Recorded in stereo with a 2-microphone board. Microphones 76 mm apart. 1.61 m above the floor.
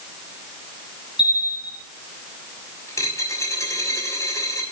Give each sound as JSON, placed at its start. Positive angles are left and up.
{"t": 1.2, "sound": "a bell", "side_deg": 80, "distance_m": 5.0}
{"t": 2.9, "sound": "a dropped coin", "side_deg": 40, "distance_m": 6.0}